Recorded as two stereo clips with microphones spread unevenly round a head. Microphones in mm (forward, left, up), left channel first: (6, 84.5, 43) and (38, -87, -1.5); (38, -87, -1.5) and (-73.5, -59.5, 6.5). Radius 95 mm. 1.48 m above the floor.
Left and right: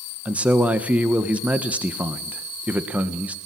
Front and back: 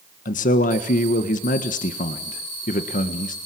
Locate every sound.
0.2 s a man speaking: straight ahead, 1.6 m